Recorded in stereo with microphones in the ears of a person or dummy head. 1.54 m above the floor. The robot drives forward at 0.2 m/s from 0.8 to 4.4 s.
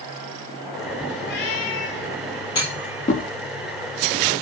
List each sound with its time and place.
1.2 s a cat meowing: 65° left (ahead or behind), 8 m; by 2.2 s 70° left (ahead or behind), 8 m
2.5 s a clunk: 20° left (ahead or behind), 0.7 m